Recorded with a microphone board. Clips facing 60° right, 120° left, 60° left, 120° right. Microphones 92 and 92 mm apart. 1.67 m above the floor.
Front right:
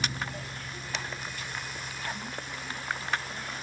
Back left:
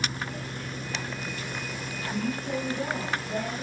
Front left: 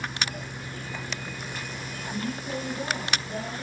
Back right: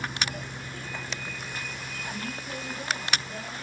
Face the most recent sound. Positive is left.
turn(degrees=125)